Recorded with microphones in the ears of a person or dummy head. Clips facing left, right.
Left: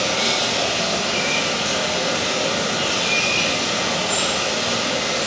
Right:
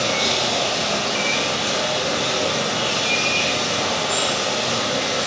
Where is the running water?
Centre (ahead or behind), 1.4 m.